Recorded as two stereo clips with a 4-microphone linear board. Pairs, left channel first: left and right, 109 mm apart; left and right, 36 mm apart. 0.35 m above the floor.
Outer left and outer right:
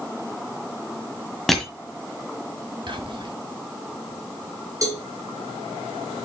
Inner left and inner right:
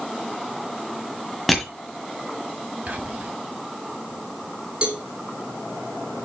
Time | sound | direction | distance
1.5 | crushing | centre (ahead or behind) | 1.7 m
2.9 | whispering | 50° right (ahead or behind) | 2 m
4.8 | a cowbell | 35° right (ahead or behind) | 3 m